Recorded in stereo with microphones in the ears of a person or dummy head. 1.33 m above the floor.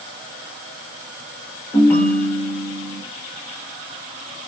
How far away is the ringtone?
About 1.0 m.